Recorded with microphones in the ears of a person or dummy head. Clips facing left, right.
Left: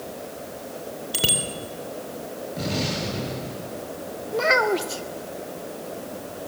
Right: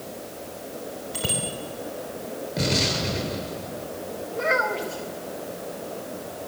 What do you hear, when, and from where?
1.1 s a bicycle bell: 50° left (ahead or behind), 3.5 m
2.6 s an explosion: 30° right (ahead or behind), 7 m
4.3 s a child speaking: 70° left (ahead or behind), 2 m